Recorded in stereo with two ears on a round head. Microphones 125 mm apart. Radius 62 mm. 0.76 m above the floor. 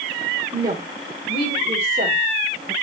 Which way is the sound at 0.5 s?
25° right (ahead or behind).